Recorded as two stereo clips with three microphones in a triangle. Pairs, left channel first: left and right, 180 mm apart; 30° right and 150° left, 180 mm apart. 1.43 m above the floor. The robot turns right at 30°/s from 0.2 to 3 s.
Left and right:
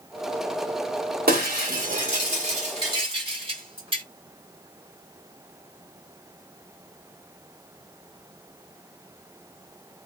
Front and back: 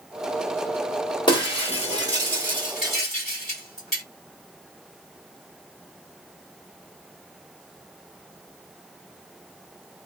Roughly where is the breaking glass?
Right.